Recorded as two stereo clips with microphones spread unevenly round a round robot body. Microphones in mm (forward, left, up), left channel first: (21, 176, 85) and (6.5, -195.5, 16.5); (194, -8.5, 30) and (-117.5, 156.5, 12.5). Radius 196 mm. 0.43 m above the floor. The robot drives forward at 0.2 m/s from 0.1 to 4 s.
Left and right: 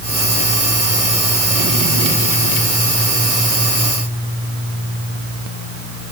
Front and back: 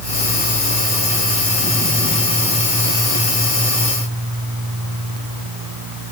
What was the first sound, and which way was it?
Only background noise.